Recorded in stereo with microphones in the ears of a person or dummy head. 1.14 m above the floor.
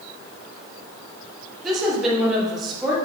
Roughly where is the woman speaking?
Centre.